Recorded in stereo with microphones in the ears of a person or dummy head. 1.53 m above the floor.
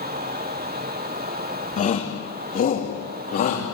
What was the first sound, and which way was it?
A shout, 40° left (ahead or behind).